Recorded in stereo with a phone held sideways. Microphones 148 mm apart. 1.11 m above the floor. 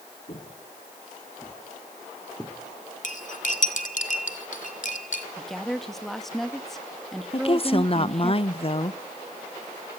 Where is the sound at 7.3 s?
40° left (ahead or behind), 0.8 m.